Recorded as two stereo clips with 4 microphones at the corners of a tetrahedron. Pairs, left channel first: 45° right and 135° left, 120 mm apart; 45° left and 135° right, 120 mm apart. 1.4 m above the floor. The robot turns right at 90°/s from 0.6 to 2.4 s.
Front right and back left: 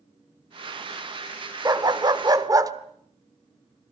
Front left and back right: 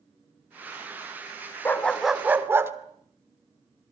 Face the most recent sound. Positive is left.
turn(degrees=170)